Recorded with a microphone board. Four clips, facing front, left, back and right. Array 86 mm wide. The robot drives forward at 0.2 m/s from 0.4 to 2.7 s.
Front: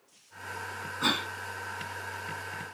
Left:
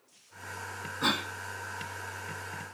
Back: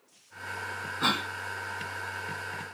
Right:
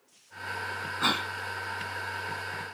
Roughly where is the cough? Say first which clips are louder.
Right 1 dB, back 1 dB; behind right.